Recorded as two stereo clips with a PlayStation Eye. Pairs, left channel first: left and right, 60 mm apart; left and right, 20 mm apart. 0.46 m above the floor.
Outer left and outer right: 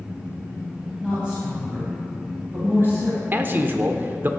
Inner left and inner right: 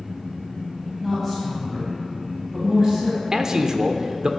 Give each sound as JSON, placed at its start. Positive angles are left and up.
{"t": 1.0, "sound": "a woman speaking", "side_deg": -15, "distance_m": 3.0}
{"t": 3.3, "sound": "a man speaking", "side_deg": -35, "distance_m": 0.8}